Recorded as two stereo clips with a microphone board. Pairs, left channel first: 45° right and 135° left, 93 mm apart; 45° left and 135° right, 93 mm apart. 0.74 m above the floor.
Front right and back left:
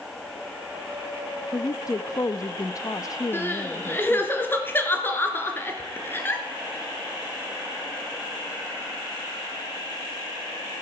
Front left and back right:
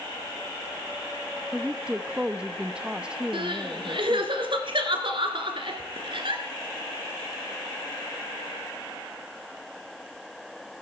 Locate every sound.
1.5 s a woman speaking: 60° right, 0.6 m
3.3 s crying: 110° right, 2 m